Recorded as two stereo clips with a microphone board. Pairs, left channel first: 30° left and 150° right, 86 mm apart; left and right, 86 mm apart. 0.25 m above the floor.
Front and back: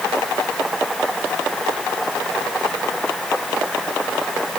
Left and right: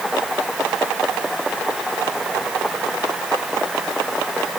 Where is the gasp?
I don't hear a gasp.